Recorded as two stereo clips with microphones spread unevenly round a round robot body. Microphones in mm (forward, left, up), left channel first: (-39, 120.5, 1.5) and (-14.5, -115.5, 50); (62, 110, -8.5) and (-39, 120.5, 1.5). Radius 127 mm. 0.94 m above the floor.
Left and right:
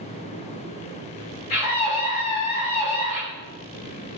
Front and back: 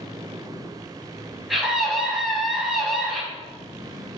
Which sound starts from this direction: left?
A scream, at 1.5 s.